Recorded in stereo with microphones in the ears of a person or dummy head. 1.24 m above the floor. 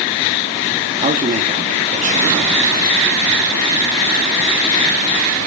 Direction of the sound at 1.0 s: 35° right (ahead or behind).